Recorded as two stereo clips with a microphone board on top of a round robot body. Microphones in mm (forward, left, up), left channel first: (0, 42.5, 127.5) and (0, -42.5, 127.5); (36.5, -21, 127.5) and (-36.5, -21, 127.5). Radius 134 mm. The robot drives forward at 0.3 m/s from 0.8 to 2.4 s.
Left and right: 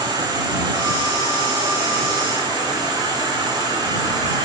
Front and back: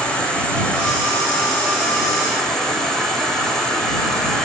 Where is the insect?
75° right, 3.5 m; by 4.5 s 85° right, 3 m.